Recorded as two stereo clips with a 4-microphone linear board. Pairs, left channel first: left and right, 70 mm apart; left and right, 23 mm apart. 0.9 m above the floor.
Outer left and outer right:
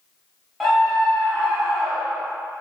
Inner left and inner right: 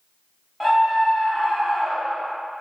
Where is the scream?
Centre (ahead or behind), 0.7 m.